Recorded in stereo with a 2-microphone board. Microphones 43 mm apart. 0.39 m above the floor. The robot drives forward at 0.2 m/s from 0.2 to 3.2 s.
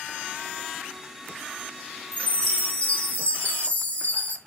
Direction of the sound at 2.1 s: 40° left (ahead or behind).